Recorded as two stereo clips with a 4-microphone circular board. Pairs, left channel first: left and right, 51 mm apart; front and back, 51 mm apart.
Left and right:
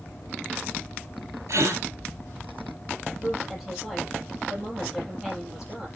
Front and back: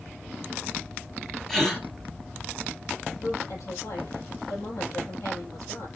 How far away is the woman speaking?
About 7.5 m.